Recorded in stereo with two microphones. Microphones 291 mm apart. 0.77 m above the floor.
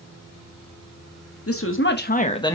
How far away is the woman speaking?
About 1.2 m.